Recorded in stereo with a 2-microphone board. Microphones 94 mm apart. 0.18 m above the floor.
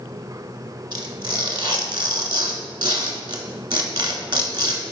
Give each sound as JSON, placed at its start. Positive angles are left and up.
{"t": 0.9, "sound": "tearing paper", "side_deg": -55, "distance_m": 0.5}